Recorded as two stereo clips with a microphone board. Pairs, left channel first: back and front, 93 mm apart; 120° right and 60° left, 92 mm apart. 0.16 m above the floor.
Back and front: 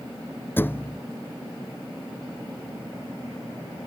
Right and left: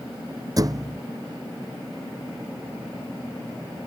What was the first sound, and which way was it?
A thud, 110° left.